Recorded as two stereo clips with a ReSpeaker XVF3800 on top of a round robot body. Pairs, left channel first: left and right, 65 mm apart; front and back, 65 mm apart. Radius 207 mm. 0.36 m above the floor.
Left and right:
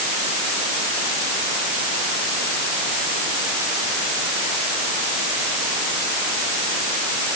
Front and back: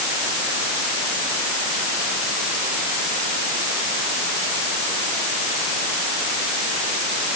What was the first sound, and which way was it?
Only background noise.